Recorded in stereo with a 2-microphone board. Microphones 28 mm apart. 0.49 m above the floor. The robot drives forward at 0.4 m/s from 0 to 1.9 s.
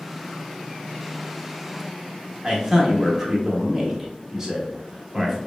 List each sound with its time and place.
2.4 s a man speaking: 10° right (ahead or behind), 0.9 m